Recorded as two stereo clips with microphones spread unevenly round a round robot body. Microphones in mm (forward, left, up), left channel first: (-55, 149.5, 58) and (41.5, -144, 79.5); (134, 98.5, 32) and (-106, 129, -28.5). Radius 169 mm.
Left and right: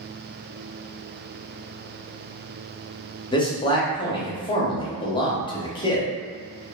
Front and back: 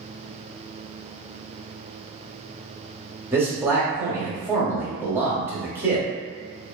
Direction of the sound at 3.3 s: 150° left.